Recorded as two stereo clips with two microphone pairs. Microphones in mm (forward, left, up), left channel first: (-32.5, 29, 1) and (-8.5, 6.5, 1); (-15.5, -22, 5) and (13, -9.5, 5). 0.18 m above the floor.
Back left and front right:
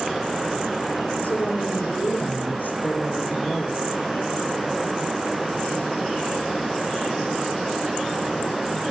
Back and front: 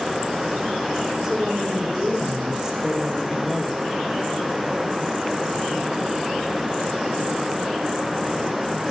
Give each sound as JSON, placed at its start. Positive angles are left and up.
{"t": 1.2, "sound": "a woman speaking", "azimuth_deg": 100, "distance_m": 6.0}